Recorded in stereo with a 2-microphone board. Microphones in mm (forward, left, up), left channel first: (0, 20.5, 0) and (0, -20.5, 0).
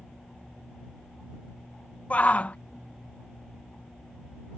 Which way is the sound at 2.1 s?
40° left (ahead or behind).